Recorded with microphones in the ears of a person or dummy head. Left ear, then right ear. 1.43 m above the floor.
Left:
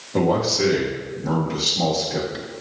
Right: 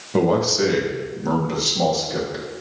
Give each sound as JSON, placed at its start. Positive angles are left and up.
{"t": 0.1, "sound": "a man speaking", "side_deg": -85, "distance_m": 1.4}